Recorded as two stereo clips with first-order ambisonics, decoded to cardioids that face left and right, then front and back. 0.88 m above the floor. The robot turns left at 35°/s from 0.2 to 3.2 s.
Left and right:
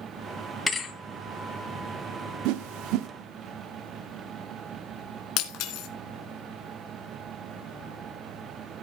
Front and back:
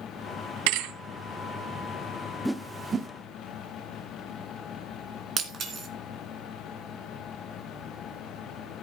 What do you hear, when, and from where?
0.7 s a thud: 170° left, 2 m; by 0.9 s 160° left, 2 m
2.5 s a whoosh: 95° right, 0.7 m; by 3.1 s 115° right, 0.7 m
5.4 s breaking glass: 120° left, 2.5 m